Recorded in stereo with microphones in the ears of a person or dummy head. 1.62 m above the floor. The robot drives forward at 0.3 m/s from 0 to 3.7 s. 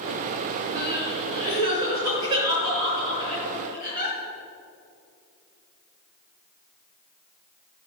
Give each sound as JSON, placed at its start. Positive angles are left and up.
{"t": 0.8, "sound": "crying", "side_deg": -25, "distance_m": 3.5}